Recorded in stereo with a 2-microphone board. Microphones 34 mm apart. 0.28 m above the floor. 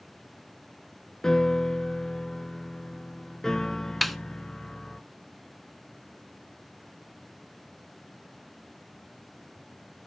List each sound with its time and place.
1.2 s a piano: 20° left (ahead or behind), 0.7 m
4.0 s a snare drum: centre (ahead or behind), 0.6 m